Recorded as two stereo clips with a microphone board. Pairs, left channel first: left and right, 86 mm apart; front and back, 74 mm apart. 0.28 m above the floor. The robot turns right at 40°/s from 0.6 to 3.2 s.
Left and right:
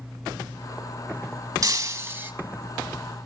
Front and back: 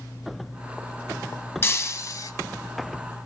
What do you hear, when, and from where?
1.6 s breaking glass: 55° right, 1.3 m; by 2.3 s 25° right, 1.3 m